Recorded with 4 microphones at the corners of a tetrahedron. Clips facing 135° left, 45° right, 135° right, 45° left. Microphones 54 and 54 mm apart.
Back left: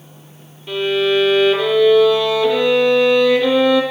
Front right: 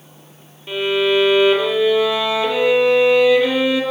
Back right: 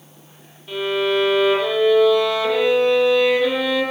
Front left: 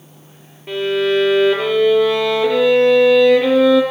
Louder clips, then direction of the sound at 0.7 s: Back left 1 dB, front left 3 dB; 30° left.